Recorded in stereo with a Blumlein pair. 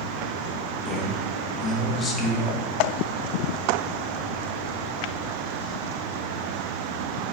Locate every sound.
0.8 s a man speaking: 20° left, 2.0 m